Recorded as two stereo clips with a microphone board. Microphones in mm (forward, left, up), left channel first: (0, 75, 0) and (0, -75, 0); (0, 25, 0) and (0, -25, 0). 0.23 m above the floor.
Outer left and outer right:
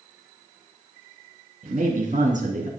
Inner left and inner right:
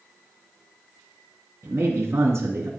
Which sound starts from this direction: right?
A man speaking, at 1.6 s.